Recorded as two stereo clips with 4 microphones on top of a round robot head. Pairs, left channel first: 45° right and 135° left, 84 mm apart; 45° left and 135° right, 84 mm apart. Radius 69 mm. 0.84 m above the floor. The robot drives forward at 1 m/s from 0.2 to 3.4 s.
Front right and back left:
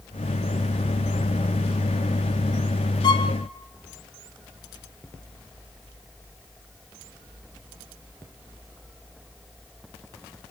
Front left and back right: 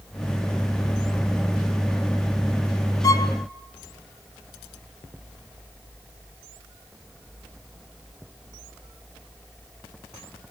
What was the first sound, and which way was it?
A violin, 5° right.